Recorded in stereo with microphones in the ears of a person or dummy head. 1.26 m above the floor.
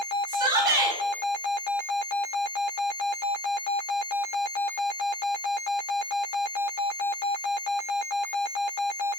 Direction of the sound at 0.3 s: 20° right (ahead or behind).